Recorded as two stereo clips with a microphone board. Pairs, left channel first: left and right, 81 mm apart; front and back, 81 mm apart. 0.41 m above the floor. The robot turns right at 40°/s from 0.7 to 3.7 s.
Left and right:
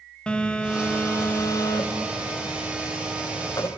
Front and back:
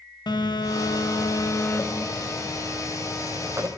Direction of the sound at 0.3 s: 15° left.